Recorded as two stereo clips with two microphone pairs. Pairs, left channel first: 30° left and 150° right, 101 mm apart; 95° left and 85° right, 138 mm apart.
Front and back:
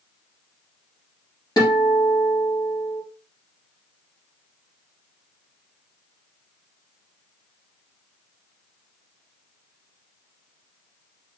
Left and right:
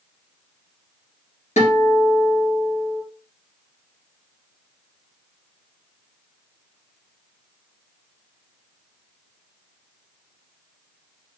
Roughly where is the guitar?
Left.